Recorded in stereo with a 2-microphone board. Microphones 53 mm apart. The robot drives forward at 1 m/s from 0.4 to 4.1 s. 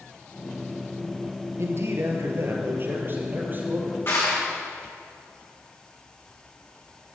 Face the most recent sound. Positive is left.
turn(degrees=45)  # may be behind; listen again after turning